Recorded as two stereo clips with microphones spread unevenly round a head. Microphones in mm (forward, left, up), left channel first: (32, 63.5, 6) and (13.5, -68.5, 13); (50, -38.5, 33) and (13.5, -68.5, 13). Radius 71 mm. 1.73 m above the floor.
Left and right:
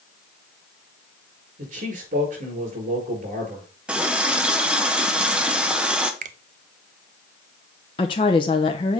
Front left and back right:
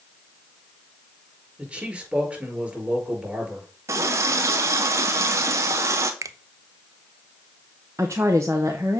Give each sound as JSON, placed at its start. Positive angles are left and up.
{"t": 1.6, "sound": "a man speaking", "azimuth_deg": -70, "distance_m": 5.0}
{"t": 3.9, "sound": "a running tap", "azimuth_deg": -170, "distance_m": 0.7}
{"t": 6.2, "sound": "a finger snap", "azimuth_deg": -120, "distance_m": 0.5}
{"t": 8.0, "sound": "a woman speaking", "azimuth_deg": 135, "distance_m": 0.7}